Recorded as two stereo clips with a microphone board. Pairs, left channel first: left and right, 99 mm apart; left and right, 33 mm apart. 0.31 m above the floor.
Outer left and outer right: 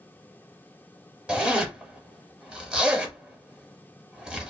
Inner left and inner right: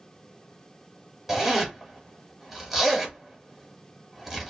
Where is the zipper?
10° right (ahead or behind), 0.9 m.